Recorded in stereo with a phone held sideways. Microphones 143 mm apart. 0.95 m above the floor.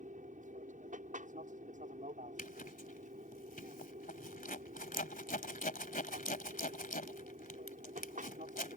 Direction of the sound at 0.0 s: 65° right (ahead or behind).